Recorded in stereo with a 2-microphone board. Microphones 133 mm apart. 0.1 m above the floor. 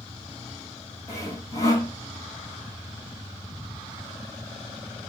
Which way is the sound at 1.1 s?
25° left (ahead or behind).